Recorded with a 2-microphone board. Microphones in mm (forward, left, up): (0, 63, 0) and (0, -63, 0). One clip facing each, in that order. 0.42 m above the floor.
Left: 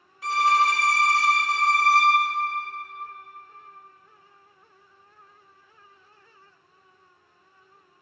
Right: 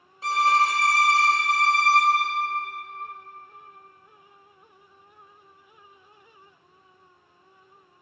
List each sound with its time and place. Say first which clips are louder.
0.2 s a violin: even; 30° right (ahead or behind), 0.8 m